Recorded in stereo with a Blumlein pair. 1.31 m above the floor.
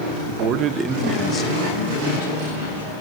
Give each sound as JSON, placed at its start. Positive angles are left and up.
{"t": 0.3, "sound": "a man speaking", "azimuth_deg": -50, "distance_m": 0.7}